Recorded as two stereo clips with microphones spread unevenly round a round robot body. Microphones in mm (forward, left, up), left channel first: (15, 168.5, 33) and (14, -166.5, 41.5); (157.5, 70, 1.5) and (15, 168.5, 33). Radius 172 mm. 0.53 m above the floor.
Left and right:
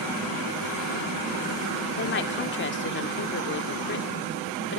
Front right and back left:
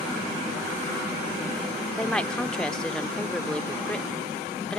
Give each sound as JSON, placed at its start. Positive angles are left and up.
{"t": 2.0, "sound": "a woman speaking", "azimuth_deg": 45}